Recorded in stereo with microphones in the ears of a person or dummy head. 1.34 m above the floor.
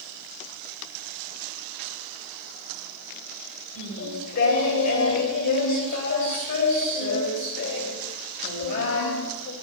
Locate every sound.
3.8 s singing: 60° left (ahead or behind), 3.5 m